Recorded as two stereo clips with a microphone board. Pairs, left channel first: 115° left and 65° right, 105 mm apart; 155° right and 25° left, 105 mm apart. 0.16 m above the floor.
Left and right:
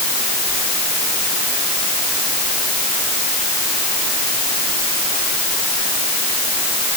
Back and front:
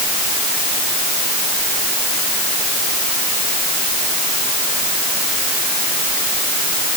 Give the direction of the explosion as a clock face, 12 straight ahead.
I don't hear an explosion.